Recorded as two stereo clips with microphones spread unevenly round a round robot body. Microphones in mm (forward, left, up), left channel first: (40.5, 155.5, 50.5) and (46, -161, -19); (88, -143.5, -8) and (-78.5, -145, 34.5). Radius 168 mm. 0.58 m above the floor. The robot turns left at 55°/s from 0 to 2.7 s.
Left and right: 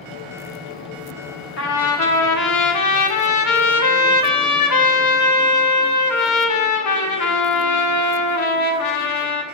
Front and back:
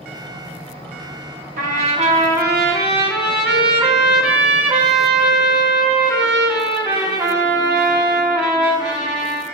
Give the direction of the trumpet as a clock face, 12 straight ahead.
7 o'clock.